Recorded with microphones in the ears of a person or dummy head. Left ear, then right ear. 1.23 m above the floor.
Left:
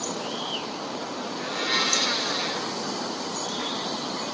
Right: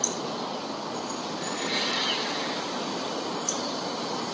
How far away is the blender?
About 3.5 m.